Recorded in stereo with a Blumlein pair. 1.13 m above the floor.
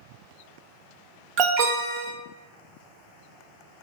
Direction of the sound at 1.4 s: 35° right.